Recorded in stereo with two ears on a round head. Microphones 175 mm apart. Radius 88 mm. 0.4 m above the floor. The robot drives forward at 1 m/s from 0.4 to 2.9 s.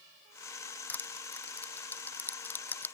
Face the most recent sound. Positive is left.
turn(degrees=10)  # may be behind; listen again after turning